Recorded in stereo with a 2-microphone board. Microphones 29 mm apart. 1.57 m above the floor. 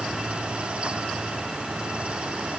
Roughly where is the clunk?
No clunk in this recording.